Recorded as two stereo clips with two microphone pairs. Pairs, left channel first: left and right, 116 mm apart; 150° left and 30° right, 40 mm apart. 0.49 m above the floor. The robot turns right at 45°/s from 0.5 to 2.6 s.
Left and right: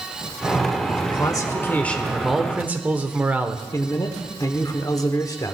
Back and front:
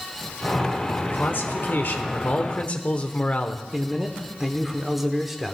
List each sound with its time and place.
1.1 s a man speaking: 130° left, 1.0 m; by 3.6 s 165° right, 1.0 m
3.7 s a man speaking: 50° left, 1.0 m